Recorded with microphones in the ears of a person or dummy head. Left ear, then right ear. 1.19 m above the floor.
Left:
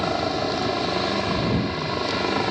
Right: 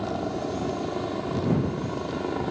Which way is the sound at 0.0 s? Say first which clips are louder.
Left 6 dB; 60° left (ahead or behind).